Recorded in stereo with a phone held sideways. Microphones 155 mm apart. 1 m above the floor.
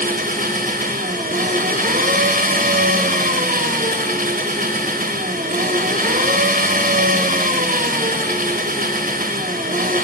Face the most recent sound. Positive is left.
turn(degrees=-60)  # may be behind; listen again after turning